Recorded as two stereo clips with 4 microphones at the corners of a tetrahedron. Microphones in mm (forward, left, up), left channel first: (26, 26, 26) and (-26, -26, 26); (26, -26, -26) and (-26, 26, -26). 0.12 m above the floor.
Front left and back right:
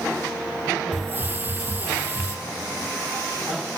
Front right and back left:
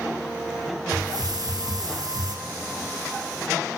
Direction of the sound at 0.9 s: 160° left.